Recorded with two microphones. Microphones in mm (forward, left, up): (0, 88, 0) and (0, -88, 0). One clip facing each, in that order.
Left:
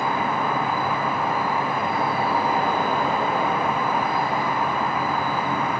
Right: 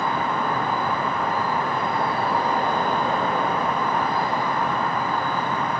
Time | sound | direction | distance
0.0 | an insect | 10° left (ahead or behind) | 1.6 m